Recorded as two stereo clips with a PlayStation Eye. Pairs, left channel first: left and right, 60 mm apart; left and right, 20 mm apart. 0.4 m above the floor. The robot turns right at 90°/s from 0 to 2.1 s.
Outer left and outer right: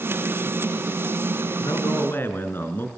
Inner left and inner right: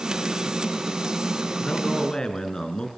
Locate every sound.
1.6 s a man speaking: 95° left, 4 m; by 2.9 s 140° left, 4 m